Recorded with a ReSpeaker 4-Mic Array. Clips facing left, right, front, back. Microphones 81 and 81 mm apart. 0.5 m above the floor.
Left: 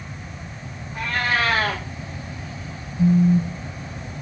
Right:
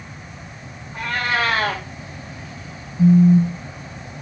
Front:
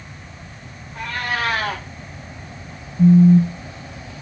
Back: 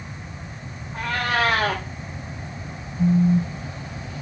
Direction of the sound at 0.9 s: 160° right.